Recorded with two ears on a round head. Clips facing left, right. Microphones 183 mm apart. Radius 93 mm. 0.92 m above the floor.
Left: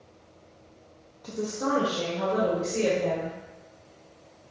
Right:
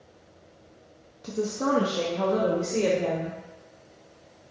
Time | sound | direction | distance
1.2 | a woman speaking | 30° right (ahead or behind) | 0.6 m